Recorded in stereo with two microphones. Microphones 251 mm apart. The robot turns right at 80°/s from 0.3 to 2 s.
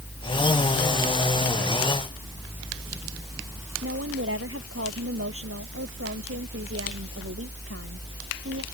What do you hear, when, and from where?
3.8 s a woman speaking: 60° right (ahead or behind)